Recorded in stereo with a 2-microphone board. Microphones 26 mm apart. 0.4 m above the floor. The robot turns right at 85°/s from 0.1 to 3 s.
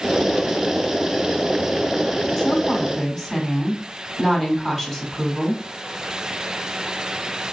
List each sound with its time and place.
2.4 s a woman speaking: 105° left, 1.2 m; by 5.6 s 160° left, 1.2 m